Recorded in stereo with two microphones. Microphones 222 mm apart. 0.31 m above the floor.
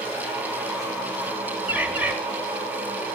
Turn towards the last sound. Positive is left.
turn(degrees=-5)  # may be behind; listen again after turning